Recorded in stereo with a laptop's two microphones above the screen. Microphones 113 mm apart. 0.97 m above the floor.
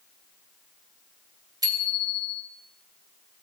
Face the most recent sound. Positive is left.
turn(degrees=-35)  # may be behind; listen again after turning